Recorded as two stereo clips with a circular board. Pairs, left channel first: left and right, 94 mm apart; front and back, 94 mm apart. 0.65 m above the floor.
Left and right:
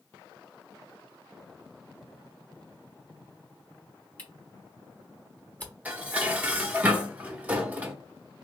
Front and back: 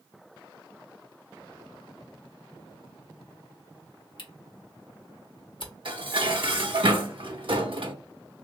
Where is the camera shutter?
20° left, 1.2 m.